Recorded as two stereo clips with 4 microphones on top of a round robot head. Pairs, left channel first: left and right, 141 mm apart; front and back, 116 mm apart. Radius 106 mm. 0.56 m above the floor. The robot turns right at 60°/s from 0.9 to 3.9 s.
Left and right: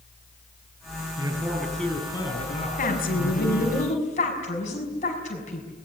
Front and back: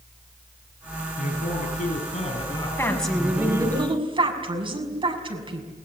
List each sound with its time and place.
1.2 s a man speaking: 30° right, 7.5 m; by 3.8 s 125° left, 7.5 m
2.8 s a woman speaking: 70° left, 6 m; by 5.7 s 140° left, 6 m